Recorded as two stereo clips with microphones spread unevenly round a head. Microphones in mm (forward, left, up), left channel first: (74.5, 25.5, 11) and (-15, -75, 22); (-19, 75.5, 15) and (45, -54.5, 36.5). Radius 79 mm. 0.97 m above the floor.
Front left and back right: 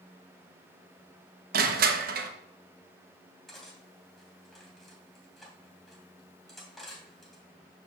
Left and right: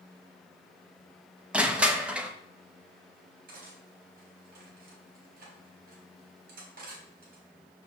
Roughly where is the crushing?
Behind right.